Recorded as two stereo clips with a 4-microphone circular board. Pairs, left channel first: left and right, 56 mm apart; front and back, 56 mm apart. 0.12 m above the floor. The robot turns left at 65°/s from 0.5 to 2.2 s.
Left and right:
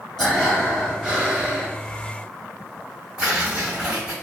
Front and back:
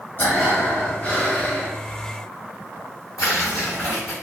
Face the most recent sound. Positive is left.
turn(degrees=-15)